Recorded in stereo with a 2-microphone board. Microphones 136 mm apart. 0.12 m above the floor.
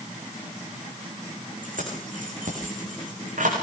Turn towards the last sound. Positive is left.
turn(degrees=-75)  # may be behind; listen again after turning